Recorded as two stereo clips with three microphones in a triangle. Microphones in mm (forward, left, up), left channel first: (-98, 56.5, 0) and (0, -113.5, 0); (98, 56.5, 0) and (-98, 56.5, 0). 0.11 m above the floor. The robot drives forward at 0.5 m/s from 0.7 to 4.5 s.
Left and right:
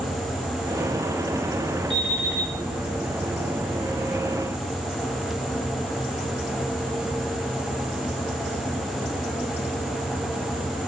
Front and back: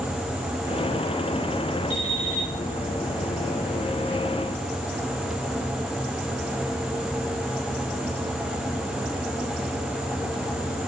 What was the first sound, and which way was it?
An alarm clock, 65° right.